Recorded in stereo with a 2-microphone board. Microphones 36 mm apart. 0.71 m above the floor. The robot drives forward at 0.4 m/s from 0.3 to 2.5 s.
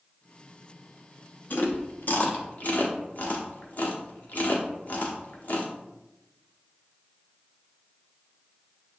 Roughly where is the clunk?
I don't hear a clunk.